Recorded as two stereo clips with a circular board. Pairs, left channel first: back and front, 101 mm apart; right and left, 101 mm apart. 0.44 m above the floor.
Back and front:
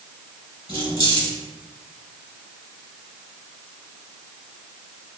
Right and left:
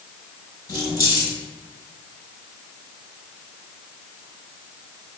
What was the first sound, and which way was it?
Keys jangling, 140° right.